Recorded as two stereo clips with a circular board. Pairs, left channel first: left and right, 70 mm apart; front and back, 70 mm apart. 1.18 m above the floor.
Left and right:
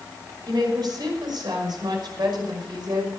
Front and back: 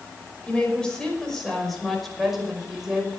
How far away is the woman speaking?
About 5.5 m.